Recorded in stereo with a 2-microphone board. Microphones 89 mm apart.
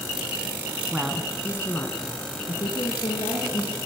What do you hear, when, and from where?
0.9 s a woman speaking: 10° right (ahead or behind), 1.0 m; by 3.8 s 70° left (ahead or behind), 3 m